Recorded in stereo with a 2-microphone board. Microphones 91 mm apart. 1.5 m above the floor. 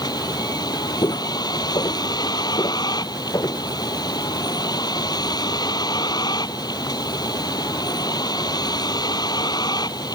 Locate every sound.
0.0 s a vehicle: 50° left (ahead or behind)
1.0 s footsteps: 55° left (ahead or behind); by 3.6 s 45° left (ahead or behind)